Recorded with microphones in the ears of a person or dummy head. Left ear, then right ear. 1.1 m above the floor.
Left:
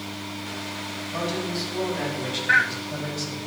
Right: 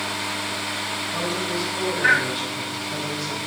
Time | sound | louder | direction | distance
1.1 | a man speaking | even | 75° left (ahead or behind) | 9 m